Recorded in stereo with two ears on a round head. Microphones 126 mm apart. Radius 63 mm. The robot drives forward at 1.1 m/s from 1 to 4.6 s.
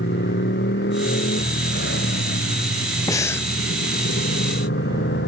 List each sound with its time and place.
0.0 s a motorcycle: 80° left; by 5.3 s 85° left
3.1 s breathing: 25° left (ahead or behind); by 3.5 s 15° left (ahead or behind)